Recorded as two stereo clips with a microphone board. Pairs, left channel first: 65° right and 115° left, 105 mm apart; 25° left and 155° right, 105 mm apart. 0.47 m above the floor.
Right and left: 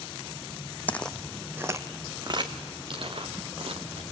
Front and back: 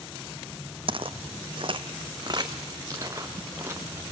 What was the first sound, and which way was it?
Footsteps, 140° right.